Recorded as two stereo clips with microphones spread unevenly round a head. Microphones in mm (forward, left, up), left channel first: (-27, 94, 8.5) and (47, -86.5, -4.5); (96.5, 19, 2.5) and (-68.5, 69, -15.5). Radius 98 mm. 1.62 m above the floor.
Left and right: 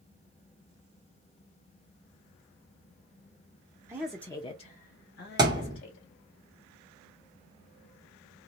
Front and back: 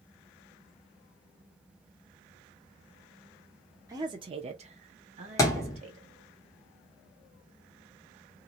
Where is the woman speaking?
135° right, 0.5 m; by 6.1 s 110° left, 1.3 m.